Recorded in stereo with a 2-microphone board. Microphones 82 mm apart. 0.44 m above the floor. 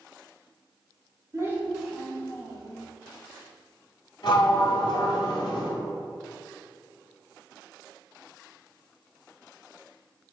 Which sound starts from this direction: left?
A sliding door, at 4.2 s.